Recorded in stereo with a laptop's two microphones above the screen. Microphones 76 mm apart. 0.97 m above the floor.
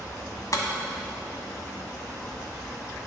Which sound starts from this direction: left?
Breaking glass, at 0.5 s.